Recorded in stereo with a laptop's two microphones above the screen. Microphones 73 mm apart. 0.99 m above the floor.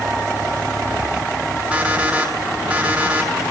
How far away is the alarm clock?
About 6.5 m.